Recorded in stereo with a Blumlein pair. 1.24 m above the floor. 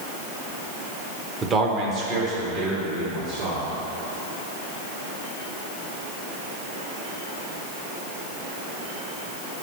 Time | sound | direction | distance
1.4 | a man speaking | 15° right | 0.8 m